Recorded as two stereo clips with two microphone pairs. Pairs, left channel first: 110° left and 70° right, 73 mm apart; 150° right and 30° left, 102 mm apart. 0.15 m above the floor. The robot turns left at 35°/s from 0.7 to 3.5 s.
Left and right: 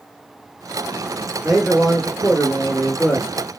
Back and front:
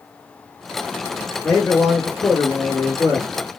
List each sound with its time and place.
1.4 s a man speaking: 125° right, 1.1 m; by 3.3 s 165° left, 1.1 m